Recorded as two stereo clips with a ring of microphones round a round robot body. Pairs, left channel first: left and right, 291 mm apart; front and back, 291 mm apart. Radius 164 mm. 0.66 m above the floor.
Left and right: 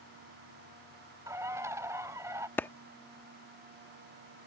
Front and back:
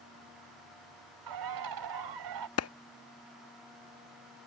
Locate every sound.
1.3 s a bird: 170° right
2.6 s a clap: 10° left